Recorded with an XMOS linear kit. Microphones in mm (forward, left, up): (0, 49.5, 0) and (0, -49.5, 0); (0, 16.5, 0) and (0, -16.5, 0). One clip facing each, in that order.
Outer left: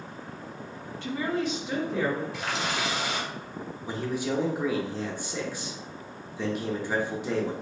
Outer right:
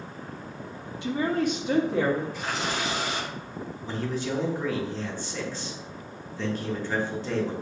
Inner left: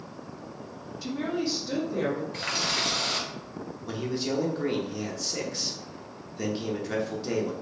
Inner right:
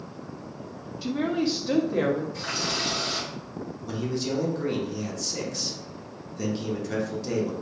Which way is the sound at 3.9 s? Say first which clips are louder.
Outer left 1 dB, inner right 1 dB; 10° left (ahead or behind).